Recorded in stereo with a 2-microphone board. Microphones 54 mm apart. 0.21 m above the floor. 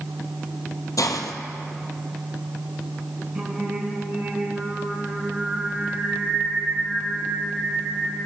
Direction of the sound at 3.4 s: 25° right (ahead or behind).